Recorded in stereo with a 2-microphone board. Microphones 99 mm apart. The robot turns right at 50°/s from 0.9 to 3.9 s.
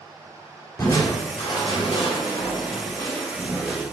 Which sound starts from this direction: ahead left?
Crushing, at 0.8 s.